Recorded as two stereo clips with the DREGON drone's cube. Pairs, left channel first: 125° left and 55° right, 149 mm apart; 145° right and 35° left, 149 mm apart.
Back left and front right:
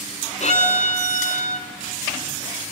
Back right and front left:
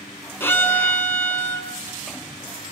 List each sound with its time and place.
0.4 s a violin: 140° left, 2.5 m